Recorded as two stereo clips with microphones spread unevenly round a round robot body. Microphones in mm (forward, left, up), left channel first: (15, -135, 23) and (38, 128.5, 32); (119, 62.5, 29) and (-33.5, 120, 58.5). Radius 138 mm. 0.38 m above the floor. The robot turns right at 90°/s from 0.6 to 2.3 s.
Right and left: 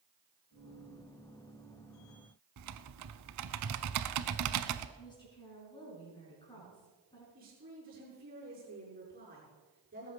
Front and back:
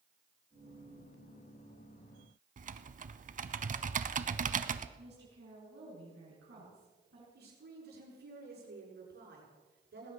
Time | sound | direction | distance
2.6 | typing on a keyboard | 120° left | 0.8 m
5.0 | a woman speaking | 170° right | 5.5 m
7.3 | a woman speaking | 145° left | 6.5 m